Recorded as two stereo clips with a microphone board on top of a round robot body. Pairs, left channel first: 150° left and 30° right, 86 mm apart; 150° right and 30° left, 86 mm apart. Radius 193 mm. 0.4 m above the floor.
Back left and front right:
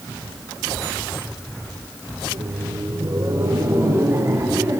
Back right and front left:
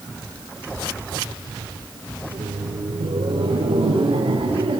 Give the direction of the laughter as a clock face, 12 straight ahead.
12 o'clock.